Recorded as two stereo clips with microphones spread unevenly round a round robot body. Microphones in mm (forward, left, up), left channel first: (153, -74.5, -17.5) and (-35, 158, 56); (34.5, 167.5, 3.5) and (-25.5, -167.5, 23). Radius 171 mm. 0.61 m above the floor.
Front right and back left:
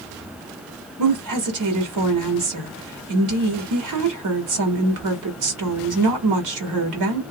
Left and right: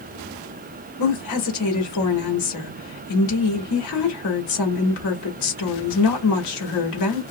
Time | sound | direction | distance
1.0 | a woman speaking | 105° left | 1.5 m